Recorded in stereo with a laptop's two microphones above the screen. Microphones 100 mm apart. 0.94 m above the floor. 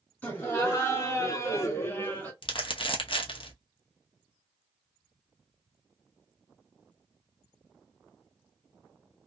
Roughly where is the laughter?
Left.